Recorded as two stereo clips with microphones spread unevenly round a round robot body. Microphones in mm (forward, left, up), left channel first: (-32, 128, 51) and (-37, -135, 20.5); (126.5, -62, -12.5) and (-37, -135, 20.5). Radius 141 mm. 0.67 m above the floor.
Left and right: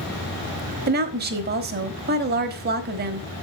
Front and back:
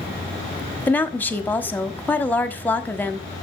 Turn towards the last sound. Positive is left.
turn(degrees=-50)